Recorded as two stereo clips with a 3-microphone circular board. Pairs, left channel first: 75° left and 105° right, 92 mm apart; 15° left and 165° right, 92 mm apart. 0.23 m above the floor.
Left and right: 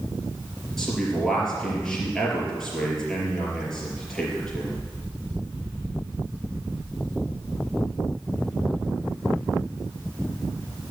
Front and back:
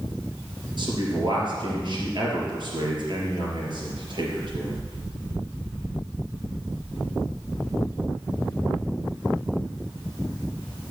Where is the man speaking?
160° left, 4 m.